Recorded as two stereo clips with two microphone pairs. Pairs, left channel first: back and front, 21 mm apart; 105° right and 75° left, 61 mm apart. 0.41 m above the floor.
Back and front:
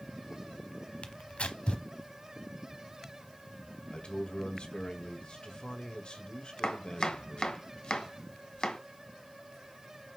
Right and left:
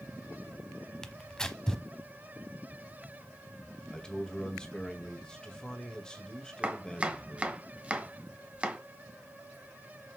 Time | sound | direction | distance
1.0 | tearing paper | 175° left | 0.8 m
3.9 | a man speaking | straight behind | 1.5 m
6.6 | chopping | 140° left | 1.0 m